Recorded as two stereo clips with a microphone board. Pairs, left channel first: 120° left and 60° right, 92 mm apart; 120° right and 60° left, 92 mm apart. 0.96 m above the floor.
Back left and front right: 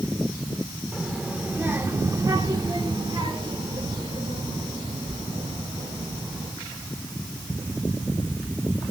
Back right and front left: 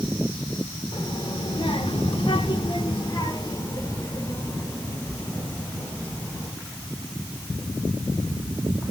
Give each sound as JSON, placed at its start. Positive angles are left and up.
{"t": 0.9, "sound": "a child speaking", "azimuth_deg": -145, "distance_m": 1.8}